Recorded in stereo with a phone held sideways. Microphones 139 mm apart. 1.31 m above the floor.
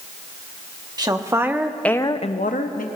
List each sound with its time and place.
1.0 s a woman speaking: 30° right (ahead or behind), 1.3 m; by 2.9 s 80° left, 1.0 m